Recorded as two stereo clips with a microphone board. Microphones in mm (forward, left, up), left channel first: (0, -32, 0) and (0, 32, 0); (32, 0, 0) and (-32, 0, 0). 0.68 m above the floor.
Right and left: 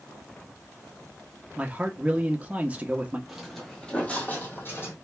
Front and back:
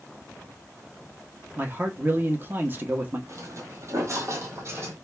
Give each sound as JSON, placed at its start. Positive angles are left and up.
{"t": 1.6, "sound": "a man speaking", "azimuth_deg": 145, "distance_m": 0.9}
{"t": 3.3, "sound": "footsteps", "azimuth_deg": 170, "distance_m": 1.0}